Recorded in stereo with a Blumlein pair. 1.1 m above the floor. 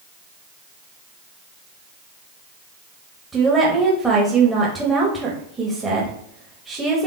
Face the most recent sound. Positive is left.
turn(degrees=-5)